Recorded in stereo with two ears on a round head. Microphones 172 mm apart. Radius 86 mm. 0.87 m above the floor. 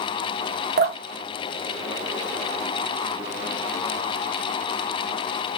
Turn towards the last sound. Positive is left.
turn(degrees=-50)  # may be behind; listen again after turning